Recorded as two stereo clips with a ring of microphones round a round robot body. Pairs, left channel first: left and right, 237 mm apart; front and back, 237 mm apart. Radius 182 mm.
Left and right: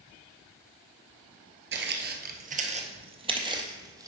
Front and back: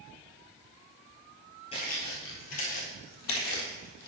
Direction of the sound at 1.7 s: 70° right.